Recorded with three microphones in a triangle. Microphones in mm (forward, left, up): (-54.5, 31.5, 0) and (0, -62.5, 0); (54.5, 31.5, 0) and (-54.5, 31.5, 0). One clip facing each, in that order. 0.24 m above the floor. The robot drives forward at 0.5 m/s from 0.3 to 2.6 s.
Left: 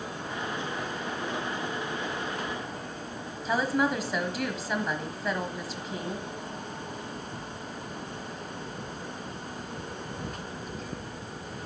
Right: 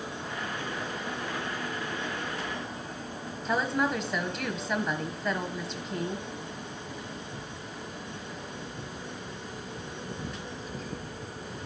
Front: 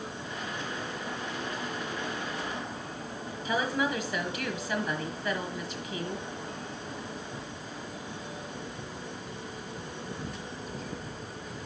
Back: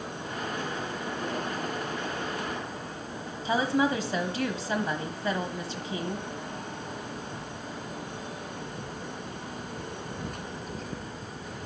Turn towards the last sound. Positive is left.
turn(degrees=-155)